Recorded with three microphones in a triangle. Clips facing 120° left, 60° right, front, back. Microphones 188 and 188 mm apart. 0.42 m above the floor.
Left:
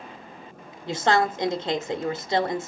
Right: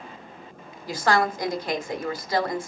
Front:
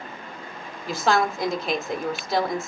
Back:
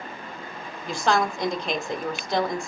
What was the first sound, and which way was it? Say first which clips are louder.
A woman speaking: left 1 dB, front 1 dB; 85° left.